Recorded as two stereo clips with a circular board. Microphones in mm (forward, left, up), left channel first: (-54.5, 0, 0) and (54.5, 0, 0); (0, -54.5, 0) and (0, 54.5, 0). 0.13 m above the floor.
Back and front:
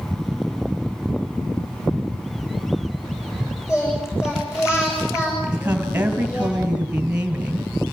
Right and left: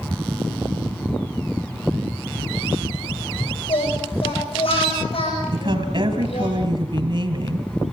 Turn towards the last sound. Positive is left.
turn(degrees=75)